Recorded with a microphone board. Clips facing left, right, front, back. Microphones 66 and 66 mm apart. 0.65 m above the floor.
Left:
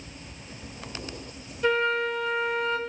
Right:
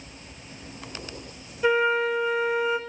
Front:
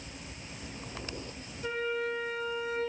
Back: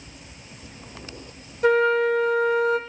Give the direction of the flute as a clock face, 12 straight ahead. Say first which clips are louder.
Right 3 dB, back 14 dB; 6 o'clock.